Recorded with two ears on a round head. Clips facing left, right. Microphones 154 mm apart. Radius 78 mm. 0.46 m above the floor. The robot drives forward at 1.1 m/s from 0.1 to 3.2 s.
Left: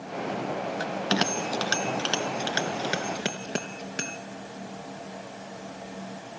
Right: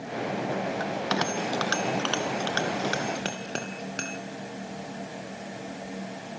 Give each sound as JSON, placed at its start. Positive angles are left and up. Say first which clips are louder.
{"t": 0.8, "sound": "a bell", "louder": "left 1 dB", "side_deg": 40, "distance_m": 1.4}